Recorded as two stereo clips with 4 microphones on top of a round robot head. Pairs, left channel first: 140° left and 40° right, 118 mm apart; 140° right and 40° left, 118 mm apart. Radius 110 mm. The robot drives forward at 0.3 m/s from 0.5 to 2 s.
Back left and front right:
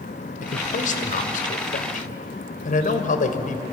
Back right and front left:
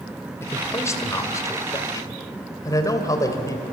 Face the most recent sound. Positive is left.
turn(degrees=155)